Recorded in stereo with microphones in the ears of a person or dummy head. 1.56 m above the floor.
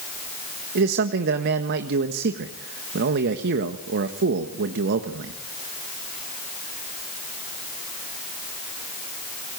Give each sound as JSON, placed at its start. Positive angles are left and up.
{"t": 0.8, "sound": "a man speaking", "side_deg": -55, "distance_m": 1.5}